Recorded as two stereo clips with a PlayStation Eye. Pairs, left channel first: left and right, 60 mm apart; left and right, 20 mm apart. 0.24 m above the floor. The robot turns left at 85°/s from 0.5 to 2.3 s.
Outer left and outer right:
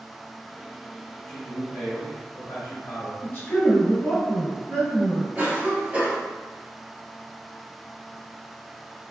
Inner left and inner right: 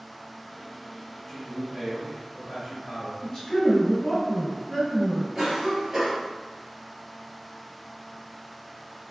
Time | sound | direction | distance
1.3 | a man speaking | 165° left | 1.8 m
3.2 | a man speaking | 35° left (ahead or behind) | 1.9 m
5.3 | a cough | 30° right (ahead or behind) | 1.3 m